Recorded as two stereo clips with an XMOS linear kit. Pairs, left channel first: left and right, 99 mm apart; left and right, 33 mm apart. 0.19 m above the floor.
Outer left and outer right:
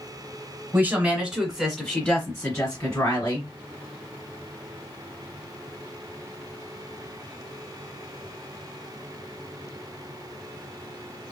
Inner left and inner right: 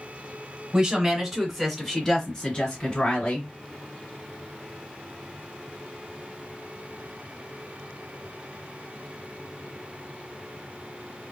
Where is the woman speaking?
20° right (ahead or behind), 1.4 m; by 3.5 s 45° left (ahead or behind), 1.9 m.